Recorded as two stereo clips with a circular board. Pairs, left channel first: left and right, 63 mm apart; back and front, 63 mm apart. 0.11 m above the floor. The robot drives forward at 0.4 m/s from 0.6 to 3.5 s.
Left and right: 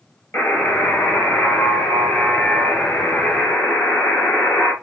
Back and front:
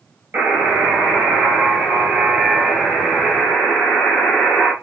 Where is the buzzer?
50° left, 2.5 m; by 4.7 s 85° left, 2 m.